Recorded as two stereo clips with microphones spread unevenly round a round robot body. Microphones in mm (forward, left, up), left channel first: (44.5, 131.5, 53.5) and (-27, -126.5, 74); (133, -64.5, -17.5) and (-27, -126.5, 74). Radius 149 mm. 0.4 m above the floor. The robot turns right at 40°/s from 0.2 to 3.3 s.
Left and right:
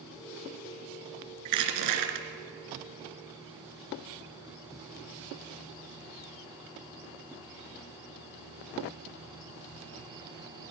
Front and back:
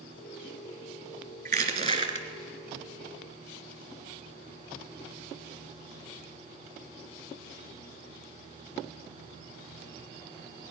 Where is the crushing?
135° right, 2 m; by 2.3 s 105° right, 2 m.